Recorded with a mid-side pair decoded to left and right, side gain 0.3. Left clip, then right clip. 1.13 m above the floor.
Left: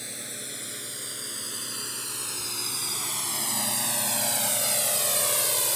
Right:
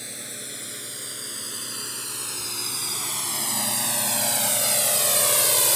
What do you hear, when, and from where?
0.0 s a drone: 10° right; by 5.8 s 60° right